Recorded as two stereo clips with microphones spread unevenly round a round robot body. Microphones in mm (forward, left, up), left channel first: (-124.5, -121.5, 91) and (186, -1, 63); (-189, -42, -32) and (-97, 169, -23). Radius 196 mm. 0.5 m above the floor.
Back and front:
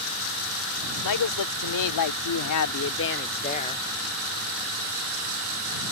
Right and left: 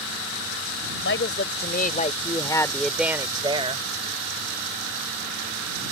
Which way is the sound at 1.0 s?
135° right.